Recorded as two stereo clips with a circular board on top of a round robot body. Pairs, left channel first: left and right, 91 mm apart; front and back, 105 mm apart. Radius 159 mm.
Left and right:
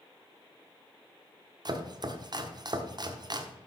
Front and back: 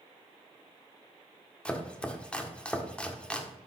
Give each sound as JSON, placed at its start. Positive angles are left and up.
{"t": 1.6, "sound": "chopping", "azimuth_deg": -80, "distance_m": 1.6}